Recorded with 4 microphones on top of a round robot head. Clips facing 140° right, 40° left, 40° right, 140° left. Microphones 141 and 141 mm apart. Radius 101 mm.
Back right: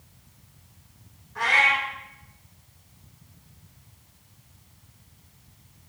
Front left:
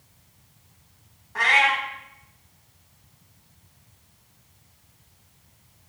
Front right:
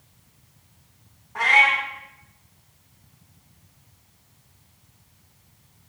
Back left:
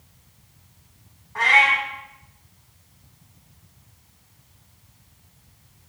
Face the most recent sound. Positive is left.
turn(degrees=40)